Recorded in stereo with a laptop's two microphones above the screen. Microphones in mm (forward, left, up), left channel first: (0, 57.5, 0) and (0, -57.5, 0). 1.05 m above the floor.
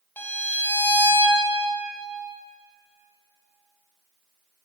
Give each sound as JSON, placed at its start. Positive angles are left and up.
{"t": 0.2, "sound": "a violin", "side_deg": 15, "distance_m": 0.6}